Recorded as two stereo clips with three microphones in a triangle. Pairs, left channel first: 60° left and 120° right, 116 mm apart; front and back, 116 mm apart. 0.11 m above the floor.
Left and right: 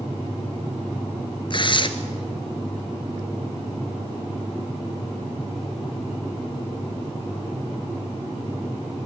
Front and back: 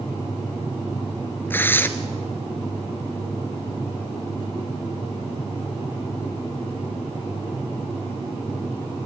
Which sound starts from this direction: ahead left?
Tearing paper, at 1.5 s.